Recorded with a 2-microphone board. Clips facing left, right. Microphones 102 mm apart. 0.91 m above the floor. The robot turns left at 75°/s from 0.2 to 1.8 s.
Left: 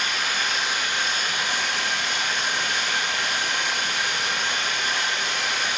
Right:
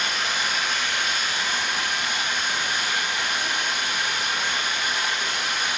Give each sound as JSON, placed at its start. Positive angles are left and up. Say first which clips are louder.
{"t": 0.0, "sound": "running water", "louder": "even", "azimuth_deg": -155, "distance_m": 4.0}